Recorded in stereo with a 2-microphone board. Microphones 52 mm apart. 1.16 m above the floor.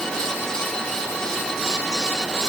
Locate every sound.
Only background noise.